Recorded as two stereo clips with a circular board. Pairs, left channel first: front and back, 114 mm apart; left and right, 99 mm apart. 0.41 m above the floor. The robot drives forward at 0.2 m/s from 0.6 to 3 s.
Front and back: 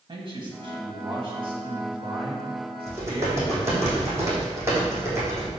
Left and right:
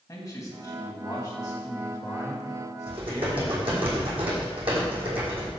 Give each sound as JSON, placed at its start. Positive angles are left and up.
{"t": 0.1, "sound": "a man speaking", "azimuth_deg": 140, "distance_m": 2.5}
{"t": 2.9, "sound": "typing on a keyboard", "azimuth_deg": -115, "distance_m": 3.5}